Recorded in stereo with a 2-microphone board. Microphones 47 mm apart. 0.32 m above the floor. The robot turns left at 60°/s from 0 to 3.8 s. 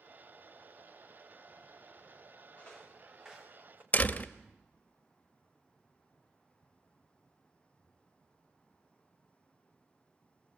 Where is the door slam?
30° left (ahead or behind), 0.9 m.